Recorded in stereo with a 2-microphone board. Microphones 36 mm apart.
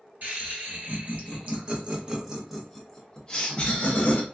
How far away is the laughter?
About 1.5 m.